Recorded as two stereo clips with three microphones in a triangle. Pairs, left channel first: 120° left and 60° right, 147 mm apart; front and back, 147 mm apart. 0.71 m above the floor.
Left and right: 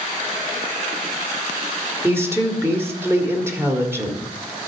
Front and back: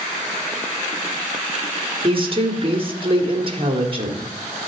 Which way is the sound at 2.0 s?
130° right.